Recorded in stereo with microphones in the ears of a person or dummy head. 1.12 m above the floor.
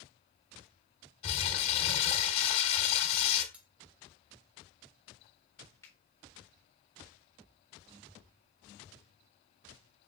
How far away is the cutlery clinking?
About 0.8 m.